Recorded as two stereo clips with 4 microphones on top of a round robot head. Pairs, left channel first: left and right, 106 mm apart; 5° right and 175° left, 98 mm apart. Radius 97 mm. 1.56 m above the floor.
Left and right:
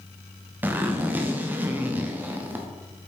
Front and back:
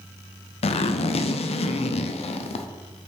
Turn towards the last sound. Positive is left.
turn(degrees=-15)